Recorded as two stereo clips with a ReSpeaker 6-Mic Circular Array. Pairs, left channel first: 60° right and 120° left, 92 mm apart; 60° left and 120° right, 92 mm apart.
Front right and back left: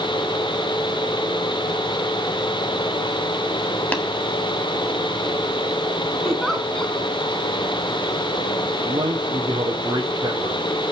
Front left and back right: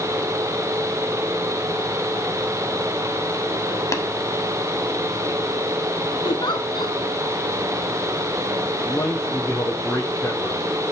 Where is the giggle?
25° left, 1.5 m.